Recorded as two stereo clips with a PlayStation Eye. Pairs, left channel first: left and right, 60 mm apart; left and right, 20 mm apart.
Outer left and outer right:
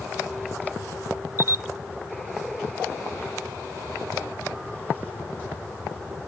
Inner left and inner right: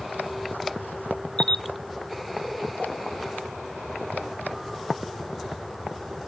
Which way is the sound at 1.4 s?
55° left (ahead or behind).